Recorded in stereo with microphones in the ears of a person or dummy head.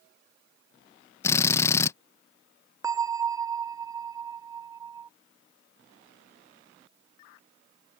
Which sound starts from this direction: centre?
A drill, at 1.2 s.